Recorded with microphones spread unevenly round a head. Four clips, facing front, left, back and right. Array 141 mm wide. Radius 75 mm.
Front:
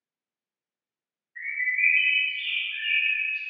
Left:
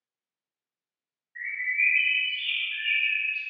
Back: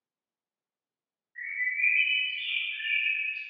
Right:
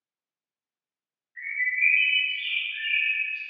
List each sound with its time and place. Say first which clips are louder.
1.4 s a bird: right 1 dB, front 4 dB; 155° left, 1.0 m